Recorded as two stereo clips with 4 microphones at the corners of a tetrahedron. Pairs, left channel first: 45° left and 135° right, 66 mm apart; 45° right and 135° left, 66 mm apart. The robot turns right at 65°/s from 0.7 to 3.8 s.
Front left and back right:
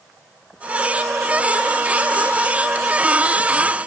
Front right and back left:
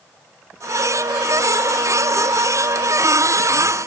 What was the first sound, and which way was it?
Only background noise.